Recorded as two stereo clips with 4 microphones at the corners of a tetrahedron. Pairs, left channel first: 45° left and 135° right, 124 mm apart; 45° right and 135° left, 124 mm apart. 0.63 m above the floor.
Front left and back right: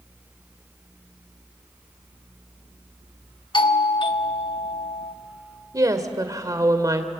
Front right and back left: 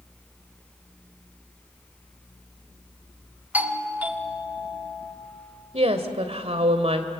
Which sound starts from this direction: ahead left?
A doorbell, at 3.5 s.